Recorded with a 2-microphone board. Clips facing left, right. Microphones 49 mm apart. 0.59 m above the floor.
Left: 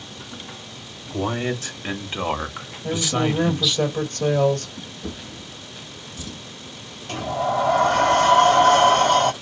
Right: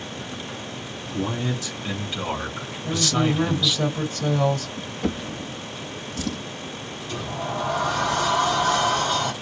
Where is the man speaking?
55° left (ahead or behind), 2.5 m; by 3.8 s 5° right (ahead or behind), 1.3 m.